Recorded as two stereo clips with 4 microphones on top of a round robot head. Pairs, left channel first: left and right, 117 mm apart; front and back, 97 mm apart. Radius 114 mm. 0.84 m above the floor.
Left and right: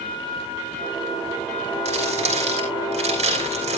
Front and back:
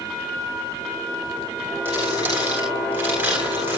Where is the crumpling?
110° right, 7 m.